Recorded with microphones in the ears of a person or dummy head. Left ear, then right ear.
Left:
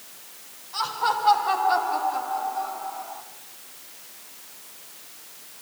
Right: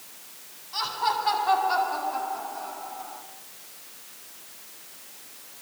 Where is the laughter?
15° right (ahead or behind), 9.5 m; by 3.2 s 5° left (ahead or behind), 7.5 m.